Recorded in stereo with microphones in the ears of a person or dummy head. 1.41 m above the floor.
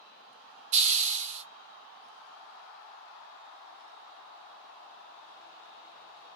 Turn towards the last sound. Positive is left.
turn(degrees=-40)  # may be behind; listen again after turning